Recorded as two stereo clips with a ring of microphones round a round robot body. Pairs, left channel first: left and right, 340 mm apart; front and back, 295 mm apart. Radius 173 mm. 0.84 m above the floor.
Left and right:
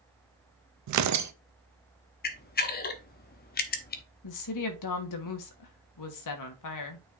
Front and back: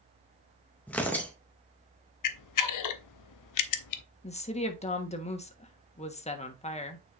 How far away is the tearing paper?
About 0.6 m.